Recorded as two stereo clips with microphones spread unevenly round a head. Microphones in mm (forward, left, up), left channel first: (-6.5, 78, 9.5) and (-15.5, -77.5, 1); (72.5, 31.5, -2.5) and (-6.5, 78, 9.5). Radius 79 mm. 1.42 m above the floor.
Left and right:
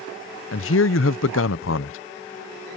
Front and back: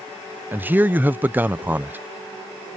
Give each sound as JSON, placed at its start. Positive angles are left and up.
{"t": 0.5, "sound": "a man speaking", "azimuth_deg": 75}